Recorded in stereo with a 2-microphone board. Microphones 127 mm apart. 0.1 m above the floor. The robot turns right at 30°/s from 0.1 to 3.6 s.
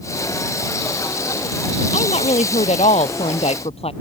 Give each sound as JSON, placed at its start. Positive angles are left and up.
{"t": 1.9, "sound": "a woman speaking", "azimuth_deg": 65}